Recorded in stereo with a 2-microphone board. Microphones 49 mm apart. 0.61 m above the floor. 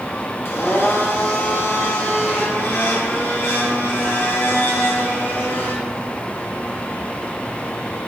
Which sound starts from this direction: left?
A blender, at 0.5 s.